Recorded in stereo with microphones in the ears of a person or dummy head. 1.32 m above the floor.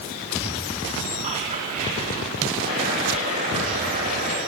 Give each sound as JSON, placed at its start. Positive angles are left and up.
{"t": 1.2, "sound": "whispering", "side_deg": -30, "distance_m": 3.5}
{"t": 2.6, "sound": "boiling", "side_deg": -45, "distance_m": 9.5}